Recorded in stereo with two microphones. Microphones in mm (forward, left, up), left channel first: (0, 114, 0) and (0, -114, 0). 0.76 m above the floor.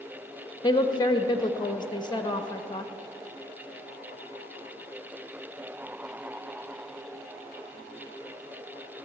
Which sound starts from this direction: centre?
A woman speaking, at 0.6 s.